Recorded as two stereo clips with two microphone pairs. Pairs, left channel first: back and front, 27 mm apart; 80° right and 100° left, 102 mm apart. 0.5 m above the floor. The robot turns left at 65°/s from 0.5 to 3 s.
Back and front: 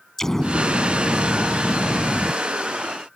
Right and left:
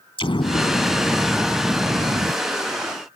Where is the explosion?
110° right; by 2.3 s 130° left.